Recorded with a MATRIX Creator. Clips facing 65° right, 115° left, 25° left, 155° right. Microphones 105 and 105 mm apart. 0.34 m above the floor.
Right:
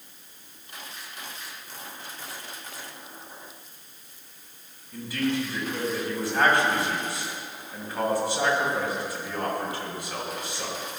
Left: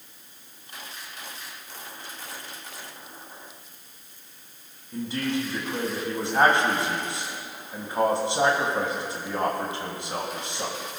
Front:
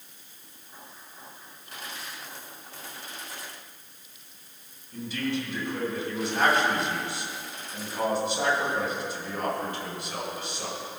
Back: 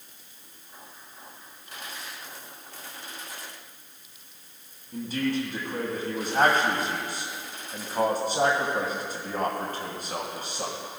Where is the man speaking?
170° left, 2.5 m.